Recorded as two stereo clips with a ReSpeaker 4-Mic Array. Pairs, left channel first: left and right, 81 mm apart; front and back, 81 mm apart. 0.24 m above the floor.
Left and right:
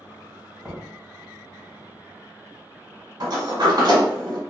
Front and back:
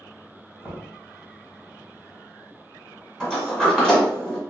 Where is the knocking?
20° right, 1.1 m.